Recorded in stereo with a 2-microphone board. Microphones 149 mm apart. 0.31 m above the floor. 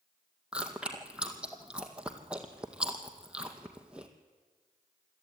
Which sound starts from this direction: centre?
Chewing, at 0.5 s.